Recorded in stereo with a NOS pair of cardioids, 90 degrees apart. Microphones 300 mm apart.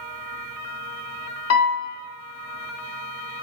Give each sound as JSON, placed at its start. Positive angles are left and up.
{"t": 1.5, "sound": "a piano", "azimuth_deg": 60, "distance_m": 1.0}